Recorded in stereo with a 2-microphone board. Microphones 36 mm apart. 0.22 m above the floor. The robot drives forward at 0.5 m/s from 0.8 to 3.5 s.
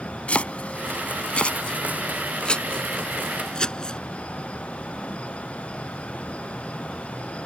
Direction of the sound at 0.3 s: 40° left (ahead or behind).